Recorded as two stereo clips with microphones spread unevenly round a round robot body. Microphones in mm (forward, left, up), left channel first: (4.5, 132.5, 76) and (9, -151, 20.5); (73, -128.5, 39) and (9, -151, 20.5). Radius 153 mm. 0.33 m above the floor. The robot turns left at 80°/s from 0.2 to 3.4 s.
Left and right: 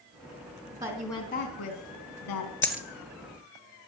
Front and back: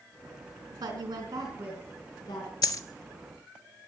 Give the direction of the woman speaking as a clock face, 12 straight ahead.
5 o'clock.